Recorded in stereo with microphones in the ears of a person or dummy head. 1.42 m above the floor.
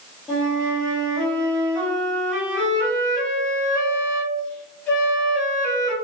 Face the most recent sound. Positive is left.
turn(degrees=0)  # may be behind; listen again after turning